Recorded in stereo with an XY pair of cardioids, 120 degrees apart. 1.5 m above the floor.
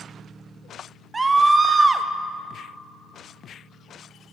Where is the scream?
20° right, 0.6 m.